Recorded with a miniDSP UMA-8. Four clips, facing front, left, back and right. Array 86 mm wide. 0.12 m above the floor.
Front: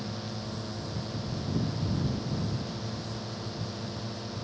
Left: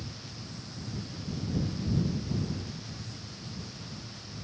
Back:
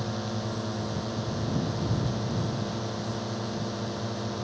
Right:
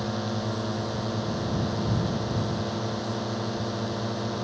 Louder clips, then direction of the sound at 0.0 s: Right 16 dB, back 5 dB; 105° right.